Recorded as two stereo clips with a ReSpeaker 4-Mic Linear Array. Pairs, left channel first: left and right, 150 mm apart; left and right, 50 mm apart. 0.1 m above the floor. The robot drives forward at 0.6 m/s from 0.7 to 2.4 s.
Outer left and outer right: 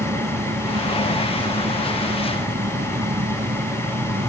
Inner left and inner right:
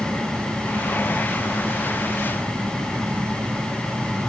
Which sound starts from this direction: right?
An engine running, at 0.0 s.